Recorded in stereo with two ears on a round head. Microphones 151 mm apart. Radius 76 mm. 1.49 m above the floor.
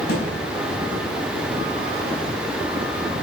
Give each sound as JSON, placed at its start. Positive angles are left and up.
{"t": 0.1, "sound": "a thud", "side_deg": 65, "distance_m": 7.5}